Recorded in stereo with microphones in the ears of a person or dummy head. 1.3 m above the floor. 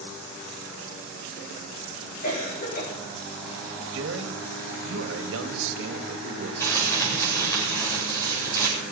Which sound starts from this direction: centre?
Crumpling, at 6.6 s.